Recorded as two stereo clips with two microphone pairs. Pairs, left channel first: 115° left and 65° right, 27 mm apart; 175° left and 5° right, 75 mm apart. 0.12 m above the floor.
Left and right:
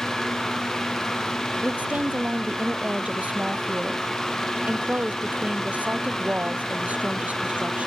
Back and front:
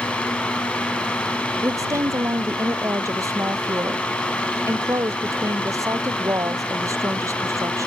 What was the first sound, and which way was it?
A woman speaking, 45° right.